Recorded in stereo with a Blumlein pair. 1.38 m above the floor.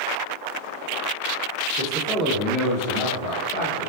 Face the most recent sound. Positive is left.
turn(degrees=60)